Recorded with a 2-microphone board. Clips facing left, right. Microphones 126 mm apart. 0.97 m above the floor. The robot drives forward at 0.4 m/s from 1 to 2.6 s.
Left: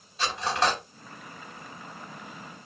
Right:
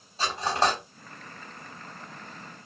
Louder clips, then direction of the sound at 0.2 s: Right 1 dB; 30° right (ahead or behind).